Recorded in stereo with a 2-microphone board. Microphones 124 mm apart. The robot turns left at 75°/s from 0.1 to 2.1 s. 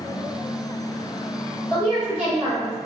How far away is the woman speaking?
About 1.6 m.